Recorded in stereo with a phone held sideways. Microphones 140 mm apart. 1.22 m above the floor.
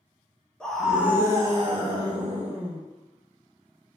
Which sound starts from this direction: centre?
A scream, at 0.6 s.